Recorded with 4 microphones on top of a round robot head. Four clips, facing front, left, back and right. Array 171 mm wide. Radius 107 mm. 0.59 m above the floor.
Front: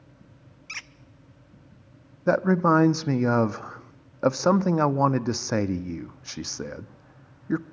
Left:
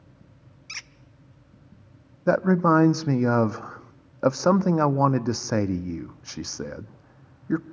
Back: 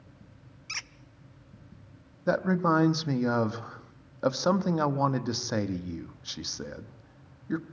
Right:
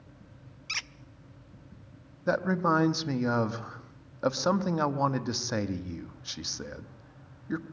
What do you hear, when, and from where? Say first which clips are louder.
0.7 s a squeak: right 4 dB, front 1 dB; 100° right, 0.6 m
2.3 s a man speaking: left 7 dB, front 5 dB; 55° left, 0.8 m